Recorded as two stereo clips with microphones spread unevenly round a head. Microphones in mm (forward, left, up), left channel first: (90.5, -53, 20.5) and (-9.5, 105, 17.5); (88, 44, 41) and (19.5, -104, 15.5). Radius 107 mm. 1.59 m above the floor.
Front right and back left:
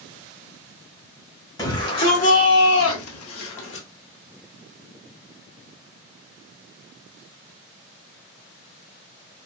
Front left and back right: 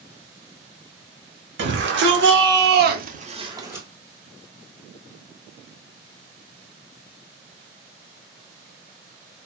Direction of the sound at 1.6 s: 130° right.